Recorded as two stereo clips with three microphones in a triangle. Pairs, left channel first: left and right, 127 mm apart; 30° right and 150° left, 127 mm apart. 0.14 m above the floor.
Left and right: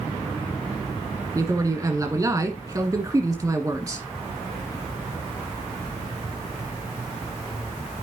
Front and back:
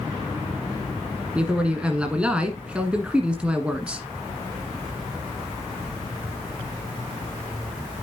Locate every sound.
1.4 s a man speaking: 135° right, 1.6 m